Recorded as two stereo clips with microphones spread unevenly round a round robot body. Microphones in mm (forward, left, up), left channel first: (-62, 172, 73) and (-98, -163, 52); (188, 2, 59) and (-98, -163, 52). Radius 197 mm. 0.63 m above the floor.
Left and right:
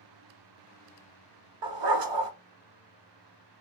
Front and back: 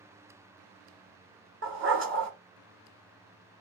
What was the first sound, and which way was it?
A dog barking, 95° right.